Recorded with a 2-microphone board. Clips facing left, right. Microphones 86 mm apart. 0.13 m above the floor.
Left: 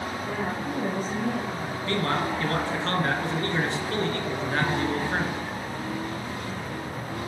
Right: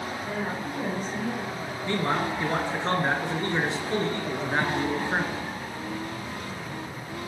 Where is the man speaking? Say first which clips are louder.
Even; 15° right (ahead or behind), 1.4 m.